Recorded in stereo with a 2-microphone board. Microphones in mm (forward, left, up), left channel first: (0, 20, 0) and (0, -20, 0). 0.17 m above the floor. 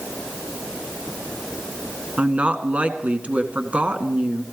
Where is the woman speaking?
35° right (ahead or behind), 1.4 m.